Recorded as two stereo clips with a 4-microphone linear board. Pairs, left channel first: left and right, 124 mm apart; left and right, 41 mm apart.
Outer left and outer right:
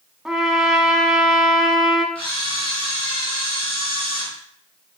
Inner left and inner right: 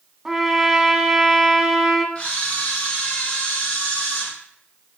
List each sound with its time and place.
0.2 s a trumpet: 5° right (ahead or behind), 0.5 m
2.1 s a camera shutter: 45° left (ahead or behind), 2 m